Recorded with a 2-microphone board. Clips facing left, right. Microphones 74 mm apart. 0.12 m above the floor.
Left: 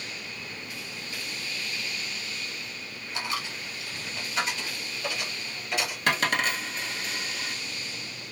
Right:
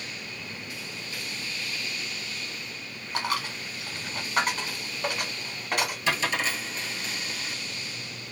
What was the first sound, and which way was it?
A dropped coin, 55° right (ahead or behind).